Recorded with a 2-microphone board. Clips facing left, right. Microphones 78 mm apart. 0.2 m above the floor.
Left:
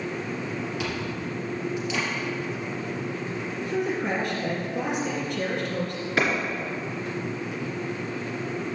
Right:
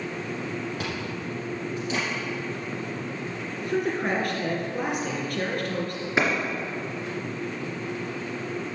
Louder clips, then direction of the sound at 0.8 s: Left 1 dB; 45° right (ahead or behind).